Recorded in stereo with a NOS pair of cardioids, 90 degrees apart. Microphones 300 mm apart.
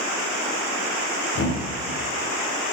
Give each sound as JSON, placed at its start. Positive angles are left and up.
{"t": 1.4, "sound": "a thud", "azimuth_deg": 45, "distance_m": 4.0}